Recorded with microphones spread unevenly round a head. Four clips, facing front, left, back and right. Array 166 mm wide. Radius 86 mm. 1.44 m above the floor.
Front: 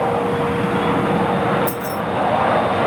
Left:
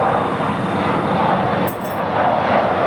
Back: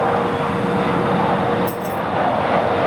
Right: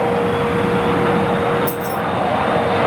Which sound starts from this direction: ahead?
Keys jangling, at 1.7 s.